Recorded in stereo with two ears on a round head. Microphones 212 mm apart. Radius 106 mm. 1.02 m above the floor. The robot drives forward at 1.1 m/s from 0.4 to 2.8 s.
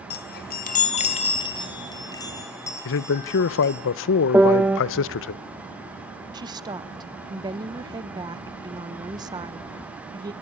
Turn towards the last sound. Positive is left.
turn(degrees=-15)  # may be behind; listen again after turning